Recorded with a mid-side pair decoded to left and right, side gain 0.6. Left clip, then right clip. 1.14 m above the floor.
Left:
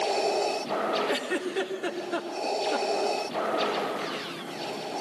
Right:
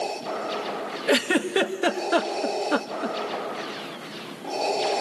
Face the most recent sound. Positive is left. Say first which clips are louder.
# right 7 dB
turn(degrees=-55)